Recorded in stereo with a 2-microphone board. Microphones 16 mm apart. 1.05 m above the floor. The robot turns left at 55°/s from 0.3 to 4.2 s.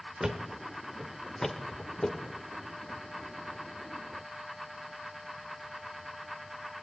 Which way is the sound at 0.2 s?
40° right (ahead or behind).